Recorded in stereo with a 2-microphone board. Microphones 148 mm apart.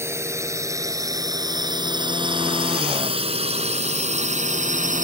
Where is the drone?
20° right (ahead or behind); by 5.0 s 60° right (ahead or behind).